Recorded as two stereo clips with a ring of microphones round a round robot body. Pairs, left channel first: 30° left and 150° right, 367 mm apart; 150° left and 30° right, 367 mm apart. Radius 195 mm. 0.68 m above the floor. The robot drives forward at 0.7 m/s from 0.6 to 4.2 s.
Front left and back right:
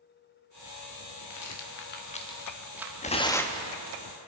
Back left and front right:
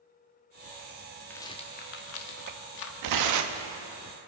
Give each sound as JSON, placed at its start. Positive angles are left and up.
{"t": 1.3, "sound": "a rattle", "azimuth_deg": 65, "distance_m": 1.2}
{"t": 3.0, "sound": "tearing paper", "azimuth_deg": -40, "distance_m": 1.1}